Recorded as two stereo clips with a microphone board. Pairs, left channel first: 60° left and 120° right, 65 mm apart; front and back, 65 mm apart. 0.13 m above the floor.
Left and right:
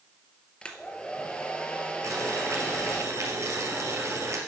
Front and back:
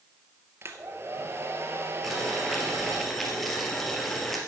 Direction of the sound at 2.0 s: 85° right.